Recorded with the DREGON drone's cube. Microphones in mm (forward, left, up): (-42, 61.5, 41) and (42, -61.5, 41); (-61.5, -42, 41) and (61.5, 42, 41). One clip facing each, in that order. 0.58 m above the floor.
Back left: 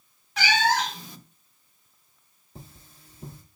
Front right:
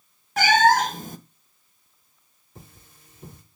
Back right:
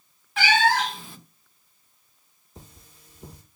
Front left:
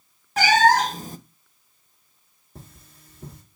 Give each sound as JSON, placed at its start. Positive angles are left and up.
{"t": 0.4, "sound": "a cat meowing", "azimuth_deg": -15, "distance_m": 0.5}
{"t": 2.5, "sound": "cutlery clinking", "azimuth_deg": 65, "distance_m": 5.0}